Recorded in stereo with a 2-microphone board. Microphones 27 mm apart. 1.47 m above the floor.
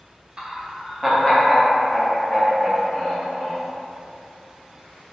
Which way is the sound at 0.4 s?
35° right (ahead or behind).